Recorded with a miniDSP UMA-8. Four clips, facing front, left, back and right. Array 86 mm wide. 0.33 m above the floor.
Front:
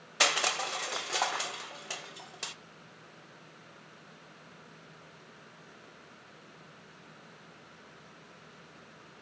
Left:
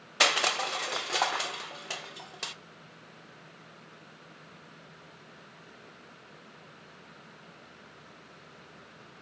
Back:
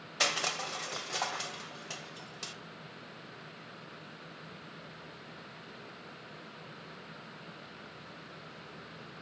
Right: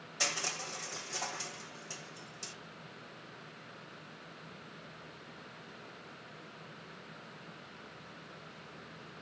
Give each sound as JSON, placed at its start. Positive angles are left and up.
{"t": 0.2, "sound": "crushing", "azimuth_deg": 75, "distance_m": 0.6}